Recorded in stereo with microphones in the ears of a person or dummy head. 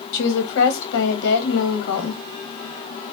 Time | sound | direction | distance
0.1 | a woman speaking | 70° left (ahead or behind) | 1.2 m